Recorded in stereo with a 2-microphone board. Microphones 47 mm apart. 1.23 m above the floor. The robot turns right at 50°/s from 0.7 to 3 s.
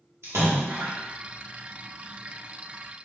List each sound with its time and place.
0.2 s a splash: 60° right (ahead or behind), 1.2 m